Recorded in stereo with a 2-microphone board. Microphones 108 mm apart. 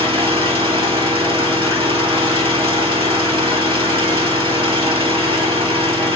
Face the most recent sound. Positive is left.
turn(degrees=-55)  # may be behind; listen again after turning